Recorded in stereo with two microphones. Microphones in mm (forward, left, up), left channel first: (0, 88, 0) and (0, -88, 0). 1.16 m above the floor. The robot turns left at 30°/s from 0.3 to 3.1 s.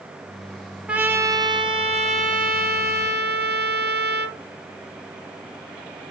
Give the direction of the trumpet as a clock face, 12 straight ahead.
12 o'clock.